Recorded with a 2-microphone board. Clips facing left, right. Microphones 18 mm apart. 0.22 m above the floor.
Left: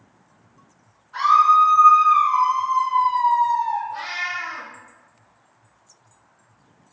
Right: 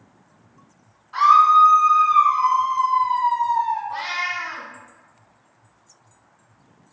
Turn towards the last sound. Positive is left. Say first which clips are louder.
# right 2 dB
turn(degrees=-45)  # may be behind; listen again after turning